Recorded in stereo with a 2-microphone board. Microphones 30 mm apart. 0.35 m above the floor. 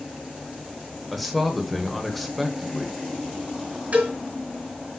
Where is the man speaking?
Centre (ahead or behind), 1.0 m.